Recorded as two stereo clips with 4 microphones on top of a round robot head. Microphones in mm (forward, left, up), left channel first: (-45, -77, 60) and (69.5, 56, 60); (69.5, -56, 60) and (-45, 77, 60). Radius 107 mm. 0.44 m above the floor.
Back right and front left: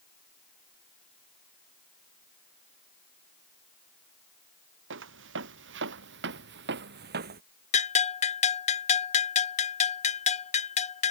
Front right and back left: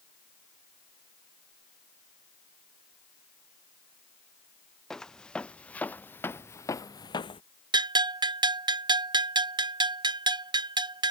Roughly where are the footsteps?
Ahead left.